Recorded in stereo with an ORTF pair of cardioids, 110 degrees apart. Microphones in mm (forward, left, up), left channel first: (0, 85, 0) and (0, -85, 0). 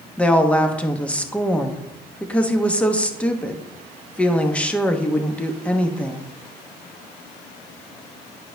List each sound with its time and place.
0.2 s a woman speaking: 10° left, 1.0 m